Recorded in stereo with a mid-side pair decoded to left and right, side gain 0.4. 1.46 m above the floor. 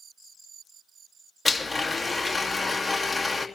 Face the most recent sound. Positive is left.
turn(degrees=15)